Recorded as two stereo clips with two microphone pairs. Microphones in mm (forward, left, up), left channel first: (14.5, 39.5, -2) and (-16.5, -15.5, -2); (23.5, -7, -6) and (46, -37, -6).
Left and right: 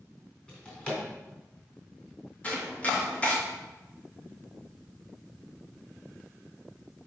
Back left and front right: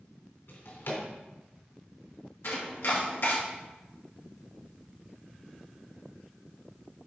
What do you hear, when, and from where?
0.5 s a drawer: 135° left, 3.5 m
2.4 s chopping: 125° left, 1.9 m